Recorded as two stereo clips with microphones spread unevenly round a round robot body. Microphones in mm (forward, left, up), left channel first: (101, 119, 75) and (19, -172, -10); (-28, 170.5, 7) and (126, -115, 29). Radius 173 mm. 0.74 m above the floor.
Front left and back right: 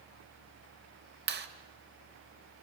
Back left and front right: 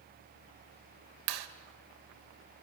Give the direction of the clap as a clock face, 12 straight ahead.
2 o'clock.